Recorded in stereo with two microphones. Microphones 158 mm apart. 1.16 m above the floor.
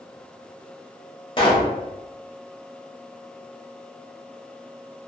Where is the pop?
35° left (ahead or behind), 0.9 m.